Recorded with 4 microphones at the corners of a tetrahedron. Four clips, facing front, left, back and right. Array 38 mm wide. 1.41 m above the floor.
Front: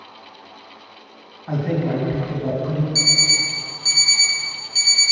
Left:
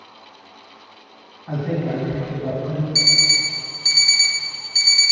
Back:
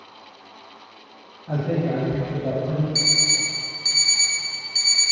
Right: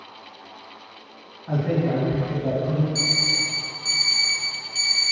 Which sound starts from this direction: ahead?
A man speaking, at 1.5 s.